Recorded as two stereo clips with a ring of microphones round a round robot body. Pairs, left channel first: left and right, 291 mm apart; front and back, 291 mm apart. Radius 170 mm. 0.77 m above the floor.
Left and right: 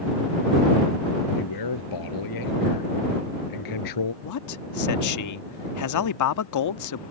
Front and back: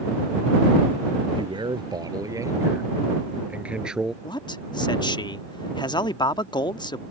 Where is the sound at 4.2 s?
75° left.